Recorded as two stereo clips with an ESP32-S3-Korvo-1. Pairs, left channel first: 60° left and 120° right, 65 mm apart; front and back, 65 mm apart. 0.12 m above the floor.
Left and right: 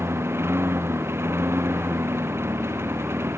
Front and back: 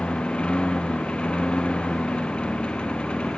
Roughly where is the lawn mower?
Right.